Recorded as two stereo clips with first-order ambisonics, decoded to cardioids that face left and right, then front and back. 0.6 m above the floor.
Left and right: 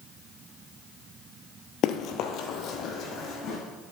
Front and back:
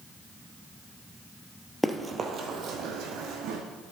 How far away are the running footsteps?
About 0.7 m.